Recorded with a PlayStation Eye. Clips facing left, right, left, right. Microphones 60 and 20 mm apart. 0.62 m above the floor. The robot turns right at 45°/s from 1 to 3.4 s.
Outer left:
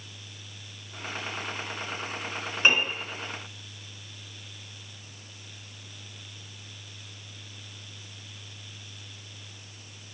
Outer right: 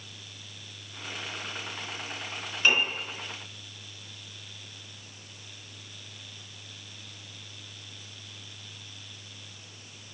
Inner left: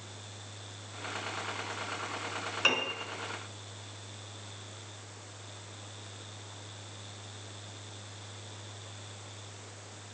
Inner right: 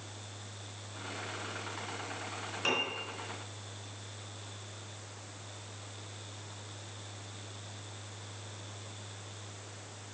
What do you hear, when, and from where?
2.6 s a piano: 30° left (ahead or behind), 3 m; by 2.9 s 40° left (ahead or behind), 3 m